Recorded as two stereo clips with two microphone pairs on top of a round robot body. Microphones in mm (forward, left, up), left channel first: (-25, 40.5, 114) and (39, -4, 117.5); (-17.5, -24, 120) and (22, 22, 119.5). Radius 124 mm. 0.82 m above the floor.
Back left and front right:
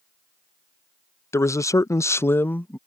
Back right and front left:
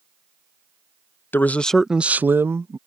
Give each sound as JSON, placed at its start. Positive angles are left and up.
{"t": 1.3, "sound": "a man speaking", "azimuth_deg": -175}